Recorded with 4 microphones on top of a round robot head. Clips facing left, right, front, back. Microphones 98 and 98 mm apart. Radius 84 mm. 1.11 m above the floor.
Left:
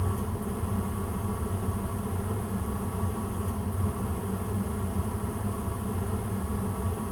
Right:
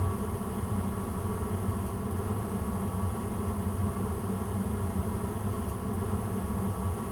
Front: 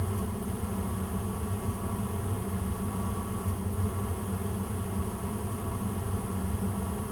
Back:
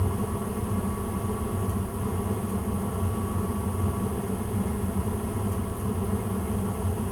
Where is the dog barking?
I don't hear a dog barking.